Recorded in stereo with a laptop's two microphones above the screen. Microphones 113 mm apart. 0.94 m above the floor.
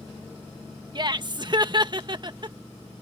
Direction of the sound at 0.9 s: 45° right (ahead or behind).